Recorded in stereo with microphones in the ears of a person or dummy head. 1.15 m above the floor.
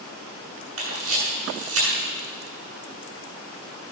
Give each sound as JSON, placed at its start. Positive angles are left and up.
{"t": 0.8, "sound": "a camera shutter", "side_deg": -80, "distance_m": 8.5}